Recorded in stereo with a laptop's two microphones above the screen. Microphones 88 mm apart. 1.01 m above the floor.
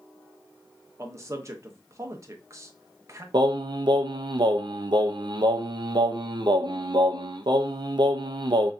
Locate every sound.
1.0 s a man speaking: 35° right (ahead or behind), 0.9 m
3.3 s singing: 60° right (ahead or behind), 0.5 m